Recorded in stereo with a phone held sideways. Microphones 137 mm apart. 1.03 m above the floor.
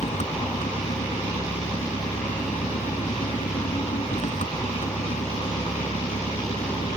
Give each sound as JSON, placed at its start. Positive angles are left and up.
{"t": 0.0, "sound": "an engine running", "side_deg": 65}